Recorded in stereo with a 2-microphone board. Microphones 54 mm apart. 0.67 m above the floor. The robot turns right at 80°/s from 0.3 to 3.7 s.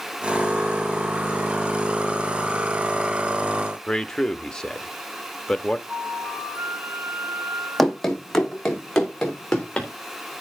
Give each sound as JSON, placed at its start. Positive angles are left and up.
{"t": 3.9, "sound": "a man speaking", "side_deg": 10, "distance_m": 1.0}
{"t": 5.9, "sound": "a flute", "side_deg": -30, "distance_m": 9.0}
{"t": 7.8, "sound": "running footsteps", "side_deg": 0, "distance_m": 1.9}